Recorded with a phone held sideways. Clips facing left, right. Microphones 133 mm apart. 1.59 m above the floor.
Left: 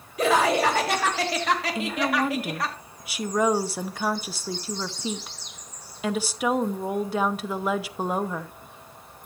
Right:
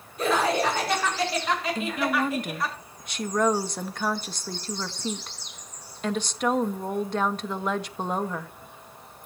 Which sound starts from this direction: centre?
A woman speaking, at 1.8 s.